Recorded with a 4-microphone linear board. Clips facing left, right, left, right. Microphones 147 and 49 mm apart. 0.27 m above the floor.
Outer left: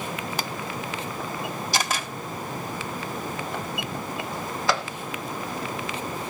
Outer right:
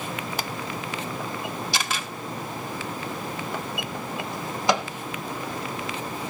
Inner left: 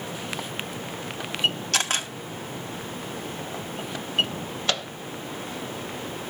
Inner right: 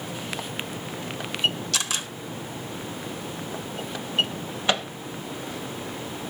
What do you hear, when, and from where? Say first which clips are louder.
1.7 s a camera shutter: outer left 2 dB, inner left 3 dB; 45° left (ahead or behind), 1.9 m
4.7 s a microwave: outer right 3 dB, inner right 3 dB; 20° right (ahead or behind), 0.7 m